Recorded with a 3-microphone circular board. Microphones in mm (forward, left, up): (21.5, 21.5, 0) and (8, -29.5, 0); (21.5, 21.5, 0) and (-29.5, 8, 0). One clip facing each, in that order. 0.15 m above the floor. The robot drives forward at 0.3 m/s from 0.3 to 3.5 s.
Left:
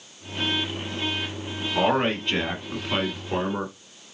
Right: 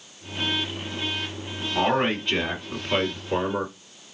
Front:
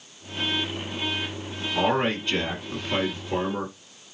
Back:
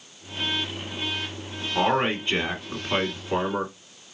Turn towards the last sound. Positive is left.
turn(degrees=170)